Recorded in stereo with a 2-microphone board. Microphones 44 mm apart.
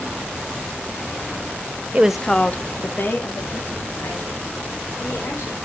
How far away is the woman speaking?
About 0.5 m.